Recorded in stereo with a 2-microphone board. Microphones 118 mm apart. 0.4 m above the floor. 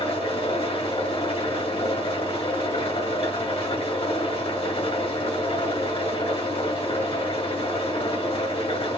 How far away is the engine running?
About 1.6 m.